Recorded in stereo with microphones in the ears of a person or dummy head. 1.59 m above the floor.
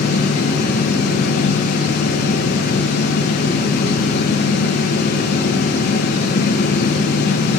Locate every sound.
0.0 s a fan: 55° left (ahead or behind), 2.5 m